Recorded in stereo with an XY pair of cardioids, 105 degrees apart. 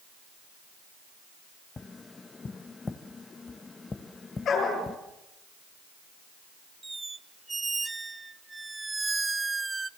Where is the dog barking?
60° left, 7.5 m.